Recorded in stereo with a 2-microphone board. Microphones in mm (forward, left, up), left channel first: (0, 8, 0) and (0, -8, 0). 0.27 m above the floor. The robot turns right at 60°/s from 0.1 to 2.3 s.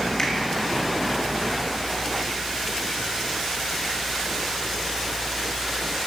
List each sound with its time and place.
0.2 s a finger snap: 25° left (ahead or behind), 2.5 m; by 0.3 s 20° left (ahead or behind), 2.5 m